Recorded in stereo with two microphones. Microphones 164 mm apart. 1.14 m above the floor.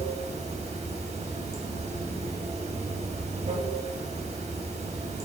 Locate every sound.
0.0 s running water: 45° right (ahead or behind), 0.7 m